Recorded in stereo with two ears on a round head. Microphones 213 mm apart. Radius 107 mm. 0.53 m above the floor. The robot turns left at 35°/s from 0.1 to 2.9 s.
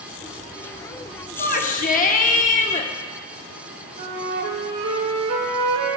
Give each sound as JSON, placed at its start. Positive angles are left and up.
{"t": 1.4, "sound": "a shout", "azimuth_deg": 110, "distance_m": 0.8}
{"t": 4.0, "sound": "a flute", "side_deg": -65, "distance_m": 1.8}